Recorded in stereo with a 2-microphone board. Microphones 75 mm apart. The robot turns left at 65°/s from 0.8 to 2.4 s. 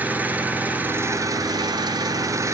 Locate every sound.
0.0 s an engine running: 25° right, 0.9 m; by 2.5 s 130° right, 0.9 m